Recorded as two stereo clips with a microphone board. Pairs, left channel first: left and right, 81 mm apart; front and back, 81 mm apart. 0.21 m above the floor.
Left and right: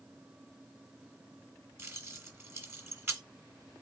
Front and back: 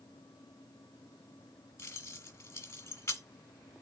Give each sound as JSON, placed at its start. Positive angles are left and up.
{"t": 1.8, "sound": "keys jangling", "azimuth_deg": -45, "distance_m": 1.4}